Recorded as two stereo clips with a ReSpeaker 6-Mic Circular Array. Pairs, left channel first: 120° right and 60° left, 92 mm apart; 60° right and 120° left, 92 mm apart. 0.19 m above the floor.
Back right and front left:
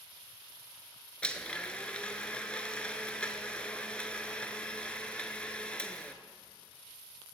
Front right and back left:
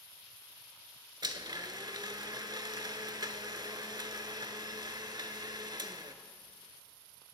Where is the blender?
160° left, 0.6 m.